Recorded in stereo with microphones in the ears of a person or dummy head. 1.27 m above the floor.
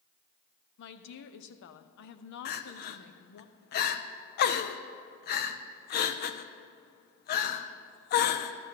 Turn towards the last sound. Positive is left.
turn(degrees=45)  # may be behind; listen again after turning